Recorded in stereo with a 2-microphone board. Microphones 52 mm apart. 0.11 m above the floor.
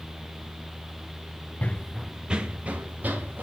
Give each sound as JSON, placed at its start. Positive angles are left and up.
{"t": 1.6, "sound": "running footsteps", "side_deg": 30, "distance_m": 0.6}